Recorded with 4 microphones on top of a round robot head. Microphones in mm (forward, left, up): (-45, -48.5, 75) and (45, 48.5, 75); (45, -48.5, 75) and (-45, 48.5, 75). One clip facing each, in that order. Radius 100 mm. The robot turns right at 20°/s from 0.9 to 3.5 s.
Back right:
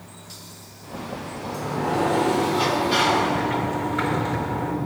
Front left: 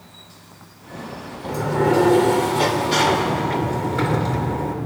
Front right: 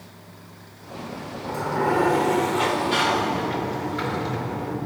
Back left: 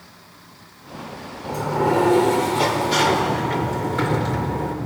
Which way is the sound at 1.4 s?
60° left.